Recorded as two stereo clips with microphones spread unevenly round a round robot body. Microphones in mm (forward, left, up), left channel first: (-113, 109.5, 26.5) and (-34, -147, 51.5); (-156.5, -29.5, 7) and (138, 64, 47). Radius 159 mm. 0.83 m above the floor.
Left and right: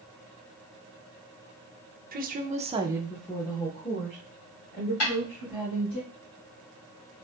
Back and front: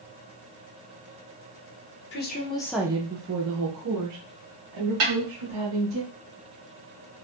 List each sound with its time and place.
2.1 s a woman speaking: 130° right, 0.7 m; by 6.0 s 45° left, 2 m
5.0 s a snare drum: 60° left, 2.0 m